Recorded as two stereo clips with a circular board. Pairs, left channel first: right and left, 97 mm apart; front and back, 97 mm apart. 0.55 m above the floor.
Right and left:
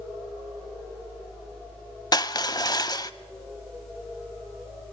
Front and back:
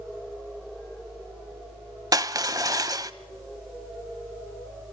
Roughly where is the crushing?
Behind right.